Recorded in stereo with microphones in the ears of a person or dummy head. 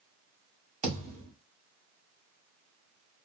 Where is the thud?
45° right (ahead or behind), 1.8 m.